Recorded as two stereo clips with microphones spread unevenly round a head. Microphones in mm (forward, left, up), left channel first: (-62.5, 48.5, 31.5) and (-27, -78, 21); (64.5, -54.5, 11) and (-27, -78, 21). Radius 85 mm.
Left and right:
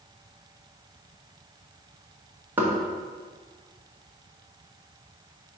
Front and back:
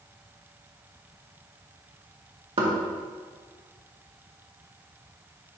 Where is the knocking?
150° right, 1.7 m.